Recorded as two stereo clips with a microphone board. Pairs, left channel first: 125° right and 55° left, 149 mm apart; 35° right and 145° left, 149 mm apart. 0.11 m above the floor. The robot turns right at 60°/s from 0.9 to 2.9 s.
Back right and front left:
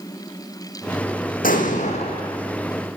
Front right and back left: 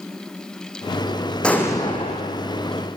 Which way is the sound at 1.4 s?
120° right.